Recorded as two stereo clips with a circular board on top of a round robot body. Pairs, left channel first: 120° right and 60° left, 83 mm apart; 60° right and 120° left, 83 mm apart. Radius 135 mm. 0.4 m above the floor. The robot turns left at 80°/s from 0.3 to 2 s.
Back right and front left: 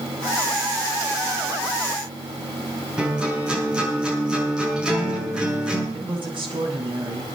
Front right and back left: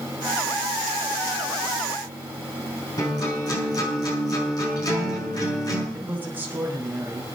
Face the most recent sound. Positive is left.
turn(degrees=55)